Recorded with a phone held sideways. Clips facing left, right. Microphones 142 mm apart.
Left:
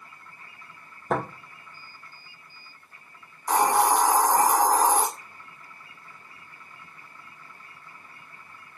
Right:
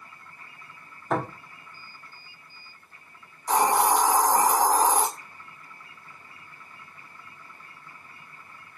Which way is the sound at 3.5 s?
50° left (ahead or behind).